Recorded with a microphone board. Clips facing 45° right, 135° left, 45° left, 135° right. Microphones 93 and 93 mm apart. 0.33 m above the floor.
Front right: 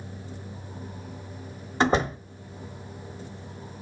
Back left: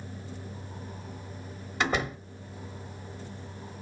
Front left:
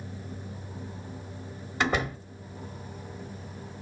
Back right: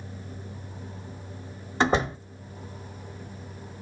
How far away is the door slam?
About 1.0 m.